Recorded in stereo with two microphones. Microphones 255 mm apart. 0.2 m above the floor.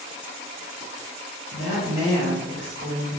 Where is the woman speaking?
5° right (ahead or behind), 1.9 m; by 3.2 s 40° right (ahead or behind), 1.6 m.